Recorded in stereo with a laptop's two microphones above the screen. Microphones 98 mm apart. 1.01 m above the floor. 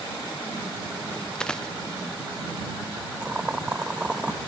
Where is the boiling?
10° right (ahead or behind).